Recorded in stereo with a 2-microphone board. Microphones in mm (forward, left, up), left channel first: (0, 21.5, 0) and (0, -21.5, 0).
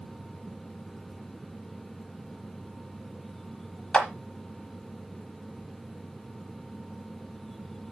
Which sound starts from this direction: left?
A clap, at 3.9 s.